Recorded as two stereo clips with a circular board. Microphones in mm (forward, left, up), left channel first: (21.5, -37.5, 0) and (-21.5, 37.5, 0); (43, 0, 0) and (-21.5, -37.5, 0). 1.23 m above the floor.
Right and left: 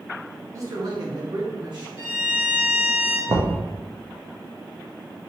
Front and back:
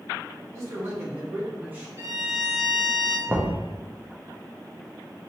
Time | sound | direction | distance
0.5 | a man speaking | 165° left | 1.1 m
2.0 | a violin | 175° left | 2.0 m
3.3 | knocking | 145° left | 0.7 m